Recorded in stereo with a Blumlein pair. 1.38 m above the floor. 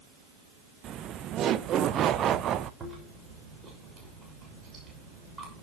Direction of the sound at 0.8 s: 25° right.